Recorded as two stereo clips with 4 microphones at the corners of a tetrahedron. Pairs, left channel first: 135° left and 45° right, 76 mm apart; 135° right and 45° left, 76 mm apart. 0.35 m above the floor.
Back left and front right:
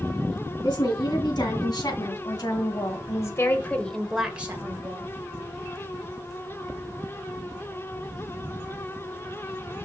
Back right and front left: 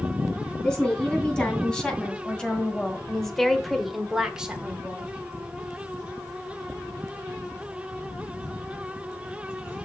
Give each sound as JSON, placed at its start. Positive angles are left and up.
{"t": 0.6, "sound": "a woman speaking", "azimuth_deg": 145, "distance_m": 3.5}